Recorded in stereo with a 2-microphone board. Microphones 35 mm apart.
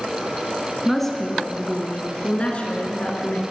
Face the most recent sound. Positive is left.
turn(degrees=50)  # may be behind; listen again after turning